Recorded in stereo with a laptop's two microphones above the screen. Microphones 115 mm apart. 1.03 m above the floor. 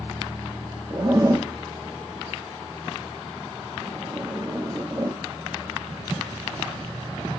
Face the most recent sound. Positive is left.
turn(degrees=-30)  # may be behind; listen again after turning